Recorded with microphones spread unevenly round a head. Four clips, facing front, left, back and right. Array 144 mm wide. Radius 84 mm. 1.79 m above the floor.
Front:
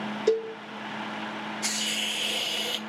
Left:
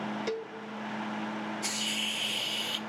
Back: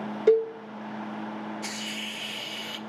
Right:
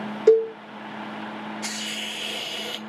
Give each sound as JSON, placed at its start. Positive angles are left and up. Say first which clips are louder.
{"t": 0.3, "sound": "a cowbell", "louder": "right 19 dB, back 5 dB", "azimuth_deg": -105, "distance_m": 1.2}
{"t": 1.6, "sound": "a hiss", "louder": "right 3 dB, front 2 dB", "azimuth_deg": -55, "distance_m": 2.5}